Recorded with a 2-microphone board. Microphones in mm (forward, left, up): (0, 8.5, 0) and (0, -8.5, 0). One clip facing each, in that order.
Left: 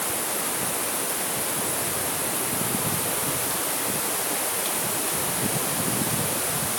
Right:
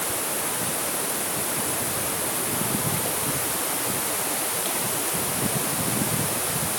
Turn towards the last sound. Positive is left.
No sound to turn to.